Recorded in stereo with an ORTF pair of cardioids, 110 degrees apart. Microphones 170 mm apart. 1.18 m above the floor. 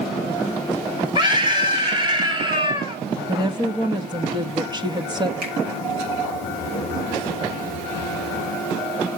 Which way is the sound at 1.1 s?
30° right.